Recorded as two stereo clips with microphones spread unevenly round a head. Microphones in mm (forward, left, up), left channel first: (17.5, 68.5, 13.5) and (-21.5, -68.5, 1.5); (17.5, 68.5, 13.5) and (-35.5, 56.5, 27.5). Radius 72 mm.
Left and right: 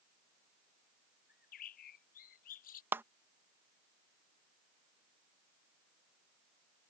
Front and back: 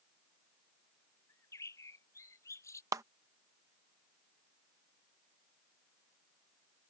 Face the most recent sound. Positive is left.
turn(degrees=175)